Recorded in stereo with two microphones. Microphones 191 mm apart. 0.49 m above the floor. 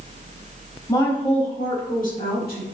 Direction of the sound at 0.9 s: 20° left (ahead or behind).